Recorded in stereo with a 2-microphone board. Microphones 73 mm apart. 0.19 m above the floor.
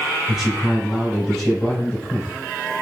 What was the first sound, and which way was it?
A man speaking, 10° right (ahead or behind).